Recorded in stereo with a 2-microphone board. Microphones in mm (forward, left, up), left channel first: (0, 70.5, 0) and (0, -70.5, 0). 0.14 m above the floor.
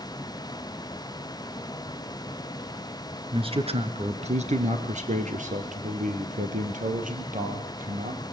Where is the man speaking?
40° right (ahead or behind), 1.6 m; by 8.2 s 70° right (ahead or behind), 4 m.